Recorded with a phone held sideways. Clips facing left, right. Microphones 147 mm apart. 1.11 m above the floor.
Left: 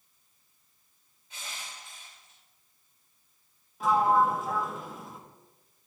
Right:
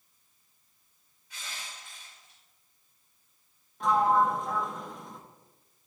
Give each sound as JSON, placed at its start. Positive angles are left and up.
{"t": 1.3, "sound": "crushing", "side_deg": 25, "distance_m": 3.0}
{"t": 3.8, "sound": "a sliding door", "side_deg": 5, "distance_m": 0.8}